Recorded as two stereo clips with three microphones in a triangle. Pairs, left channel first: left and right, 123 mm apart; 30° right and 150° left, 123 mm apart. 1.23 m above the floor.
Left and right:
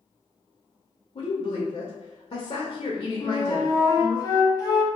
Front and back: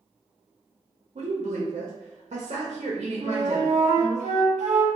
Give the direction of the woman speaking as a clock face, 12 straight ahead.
8 o'clock.